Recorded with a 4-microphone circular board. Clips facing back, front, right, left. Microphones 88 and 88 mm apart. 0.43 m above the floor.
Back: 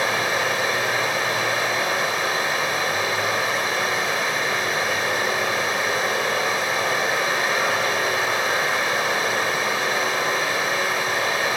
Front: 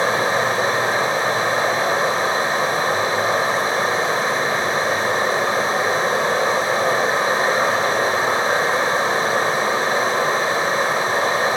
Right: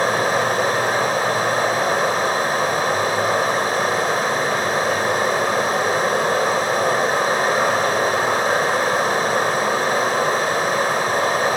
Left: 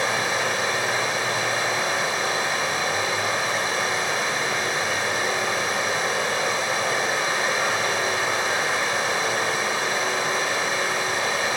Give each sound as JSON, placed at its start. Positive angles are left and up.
{"t": 0.0, "sound": "running water", "azimuth_deg": -50, "distance_m": 0.9}